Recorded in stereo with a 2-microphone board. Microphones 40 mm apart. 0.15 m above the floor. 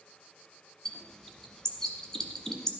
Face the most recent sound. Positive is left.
turn(degrees=15)  # may be behind; listen again after turning